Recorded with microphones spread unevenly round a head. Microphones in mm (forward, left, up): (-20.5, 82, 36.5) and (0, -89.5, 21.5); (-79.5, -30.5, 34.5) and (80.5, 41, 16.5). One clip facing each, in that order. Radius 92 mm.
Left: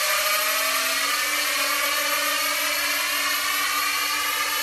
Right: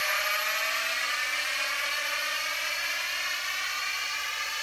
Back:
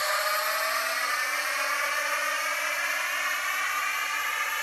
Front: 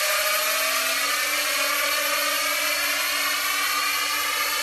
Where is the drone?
75° left; by 4.6 s 65° left.